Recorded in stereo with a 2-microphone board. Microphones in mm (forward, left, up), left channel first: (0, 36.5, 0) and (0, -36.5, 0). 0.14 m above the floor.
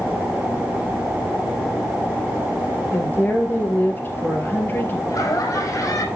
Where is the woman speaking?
30° left (ahead or behind), 2.5 m.